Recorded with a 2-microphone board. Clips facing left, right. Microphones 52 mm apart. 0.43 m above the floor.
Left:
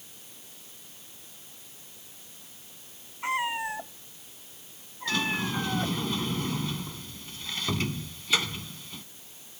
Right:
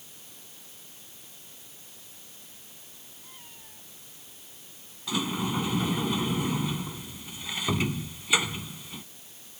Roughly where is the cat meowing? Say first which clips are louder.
Left 27 dB; left.